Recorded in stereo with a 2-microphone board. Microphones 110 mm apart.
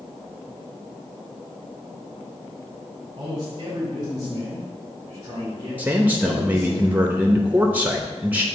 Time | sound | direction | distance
3.2 | a man speaking | 45° right (ahead or behind) | 2.5 m
5.8 | a man speaking | 15° right (ahead or behind) | 0.6 m